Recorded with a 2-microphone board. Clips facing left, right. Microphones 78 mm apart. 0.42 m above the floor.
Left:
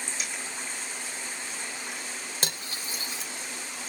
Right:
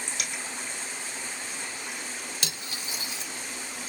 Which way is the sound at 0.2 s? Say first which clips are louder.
Right 1 dB; 70° right (ahead or behind).